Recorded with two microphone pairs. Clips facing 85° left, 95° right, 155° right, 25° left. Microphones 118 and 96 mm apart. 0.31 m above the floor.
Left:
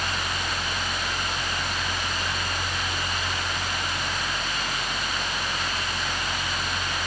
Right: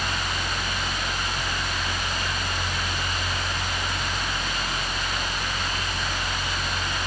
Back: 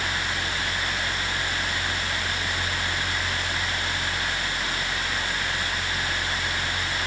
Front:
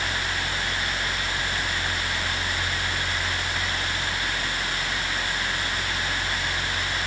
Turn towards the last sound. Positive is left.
No sound to turn to.